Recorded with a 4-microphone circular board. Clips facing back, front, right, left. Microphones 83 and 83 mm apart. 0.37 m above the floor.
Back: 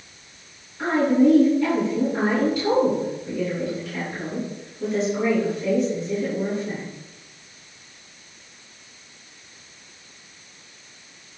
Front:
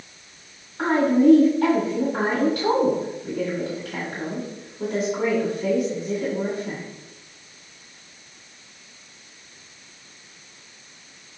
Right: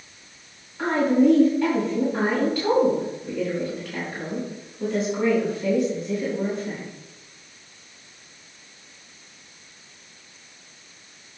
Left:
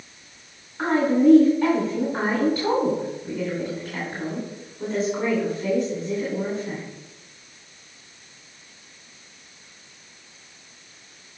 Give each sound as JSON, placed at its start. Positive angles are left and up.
{"t": 0.8, "sound": "a woman speaking", "azimuth_deg": 5, "distance_m": 2.5}